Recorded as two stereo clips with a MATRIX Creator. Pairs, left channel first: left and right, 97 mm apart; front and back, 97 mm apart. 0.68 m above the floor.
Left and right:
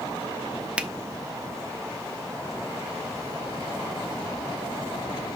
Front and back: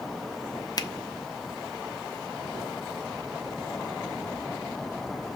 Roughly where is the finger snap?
Ahead.